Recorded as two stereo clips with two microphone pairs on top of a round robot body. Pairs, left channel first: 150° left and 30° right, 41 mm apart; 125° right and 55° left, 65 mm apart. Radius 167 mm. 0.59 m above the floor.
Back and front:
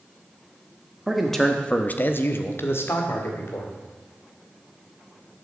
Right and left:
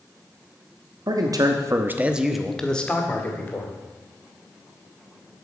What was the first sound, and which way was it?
A man speaking, 55° left.